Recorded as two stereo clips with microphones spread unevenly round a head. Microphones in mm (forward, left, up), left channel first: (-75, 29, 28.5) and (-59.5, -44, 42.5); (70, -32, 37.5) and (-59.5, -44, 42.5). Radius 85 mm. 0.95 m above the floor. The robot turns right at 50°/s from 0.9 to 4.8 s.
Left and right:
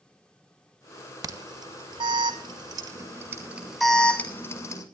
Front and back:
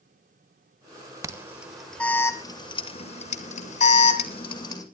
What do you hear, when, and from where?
1.2 s an alarm: 110° right, 2.5 m; by 4.8 s 70° left, 2.5 m